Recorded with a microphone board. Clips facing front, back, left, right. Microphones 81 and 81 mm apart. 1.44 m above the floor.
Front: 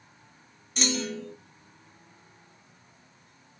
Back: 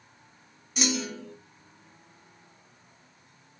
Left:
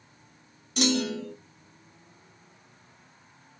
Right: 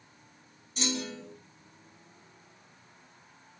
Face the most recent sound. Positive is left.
turn(degrees=95)